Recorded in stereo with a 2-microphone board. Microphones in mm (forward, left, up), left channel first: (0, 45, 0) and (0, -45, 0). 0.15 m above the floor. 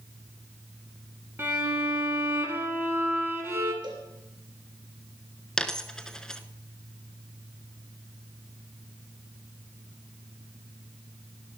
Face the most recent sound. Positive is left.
turn(degrees=10)  # may be behind; listen again after turning